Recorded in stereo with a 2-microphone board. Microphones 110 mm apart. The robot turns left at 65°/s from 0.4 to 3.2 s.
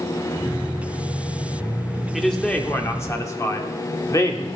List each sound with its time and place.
2.1 s a man speaking: 175° right, 0.8 m; by 4.5 s 115° left, 0.8 m